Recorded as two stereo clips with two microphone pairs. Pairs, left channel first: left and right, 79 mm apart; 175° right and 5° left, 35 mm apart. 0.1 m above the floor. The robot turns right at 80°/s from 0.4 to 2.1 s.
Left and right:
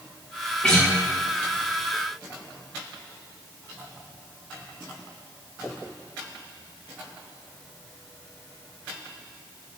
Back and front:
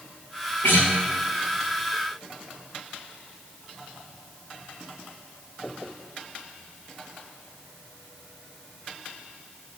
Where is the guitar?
165° left, 1.3 m; by 0.9 s 175° right, 1.3 m.